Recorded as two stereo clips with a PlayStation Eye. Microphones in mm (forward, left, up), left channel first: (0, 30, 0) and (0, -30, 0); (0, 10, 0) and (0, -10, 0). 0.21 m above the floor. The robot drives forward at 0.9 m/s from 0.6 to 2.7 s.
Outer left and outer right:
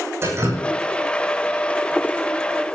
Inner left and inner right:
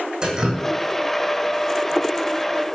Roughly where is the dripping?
Right.